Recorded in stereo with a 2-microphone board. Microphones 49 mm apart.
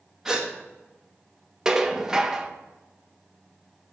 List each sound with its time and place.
0.2 s a gasp: 10° right (ahead or behind), 1.7 m
1.6 s dishes clattering: 15° right (ahead or behind), 0.8 m